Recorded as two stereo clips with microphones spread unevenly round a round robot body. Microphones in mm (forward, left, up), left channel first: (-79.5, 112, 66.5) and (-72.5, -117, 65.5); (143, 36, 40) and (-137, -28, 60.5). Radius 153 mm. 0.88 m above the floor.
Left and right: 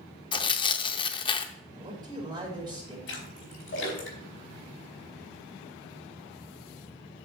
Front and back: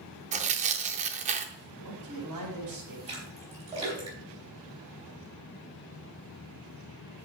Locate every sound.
0.3 s tearing paper: 150° left, 0.5 m
1.8 s a man speaking: 160° right, 5 m
3.1 s a splash: 125° left, 4 m